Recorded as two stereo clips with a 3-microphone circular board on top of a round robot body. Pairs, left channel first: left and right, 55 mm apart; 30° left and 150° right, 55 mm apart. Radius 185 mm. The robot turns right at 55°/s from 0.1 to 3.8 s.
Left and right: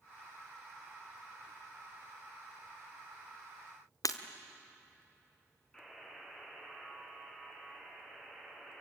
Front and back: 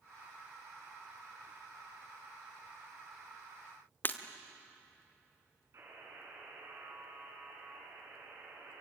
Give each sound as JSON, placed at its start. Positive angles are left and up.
{"t": 4.0, "sound": "breaking glass", "azimuth_deg": 85, "distance_m": 1.2}
{"t": 5.7, "sound": "a buzzer", "azimuth_deg": 170, "distance_m": 7.5}